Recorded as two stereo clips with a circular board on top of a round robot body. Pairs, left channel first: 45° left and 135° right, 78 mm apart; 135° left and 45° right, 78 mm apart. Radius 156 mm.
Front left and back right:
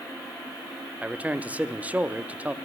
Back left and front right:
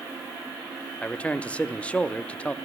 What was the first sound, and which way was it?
A man speaking, 175° right.